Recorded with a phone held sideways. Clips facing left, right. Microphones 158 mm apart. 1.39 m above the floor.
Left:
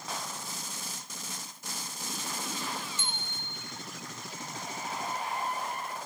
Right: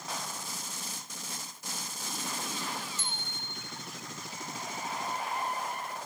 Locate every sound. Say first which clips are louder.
3.0 s a bicycle bell: left 1 dB; 70° left (ahead or behind), 3 m